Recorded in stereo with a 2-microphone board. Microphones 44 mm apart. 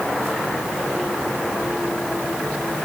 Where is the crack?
No crack in this recording.